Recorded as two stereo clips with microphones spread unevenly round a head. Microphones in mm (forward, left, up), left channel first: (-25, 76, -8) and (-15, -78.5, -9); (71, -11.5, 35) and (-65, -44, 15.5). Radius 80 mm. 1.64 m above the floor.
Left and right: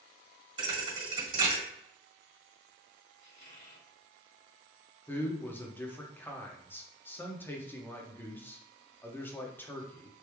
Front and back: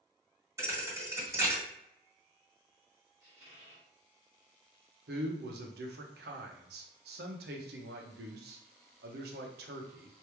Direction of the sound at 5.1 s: 170° left.